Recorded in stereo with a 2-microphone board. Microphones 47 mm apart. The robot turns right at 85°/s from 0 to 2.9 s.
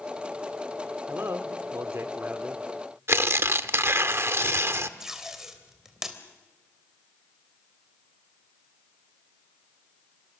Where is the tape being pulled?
10° right (ahead or behind), 3 m.